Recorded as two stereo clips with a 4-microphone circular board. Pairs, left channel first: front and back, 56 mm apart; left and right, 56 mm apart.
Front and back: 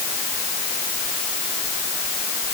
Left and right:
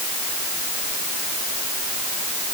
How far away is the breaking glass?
I don't hear breaking glass.